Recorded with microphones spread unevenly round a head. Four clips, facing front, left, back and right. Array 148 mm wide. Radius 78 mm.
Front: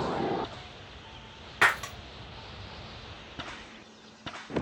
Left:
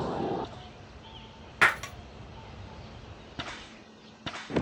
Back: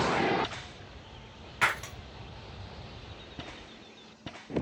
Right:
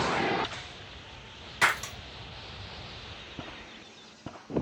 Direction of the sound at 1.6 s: 35° left.